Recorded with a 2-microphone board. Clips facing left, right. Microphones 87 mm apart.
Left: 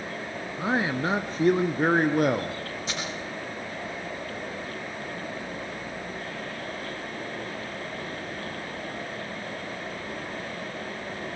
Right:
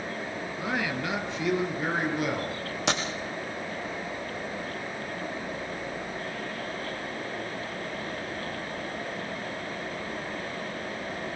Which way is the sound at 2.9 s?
80° right.